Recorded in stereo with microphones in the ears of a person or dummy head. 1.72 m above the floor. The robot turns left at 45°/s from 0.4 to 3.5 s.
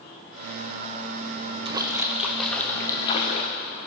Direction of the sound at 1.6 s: 145° right.